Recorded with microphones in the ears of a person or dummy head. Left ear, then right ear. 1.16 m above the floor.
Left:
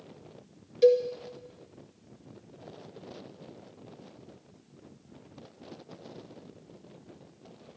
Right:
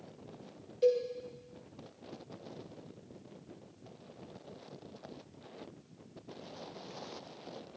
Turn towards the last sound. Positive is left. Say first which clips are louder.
# left 7 dB
turn(degrees=30)  # may be behind; listen again after turning